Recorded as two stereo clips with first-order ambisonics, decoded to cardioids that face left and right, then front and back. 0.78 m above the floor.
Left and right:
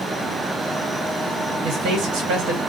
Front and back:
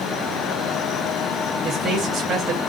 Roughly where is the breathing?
I don't hear breathing.